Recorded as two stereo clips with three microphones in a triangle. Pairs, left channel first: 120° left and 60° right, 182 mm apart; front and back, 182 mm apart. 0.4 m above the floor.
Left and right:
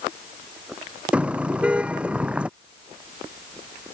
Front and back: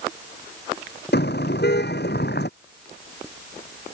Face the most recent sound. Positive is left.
turn(degrees=25)